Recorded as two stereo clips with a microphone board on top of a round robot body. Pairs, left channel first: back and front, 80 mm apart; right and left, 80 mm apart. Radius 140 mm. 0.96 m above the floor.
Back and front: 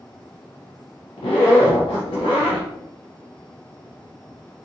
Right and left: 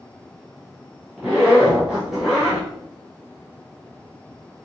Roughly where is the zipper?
Behind.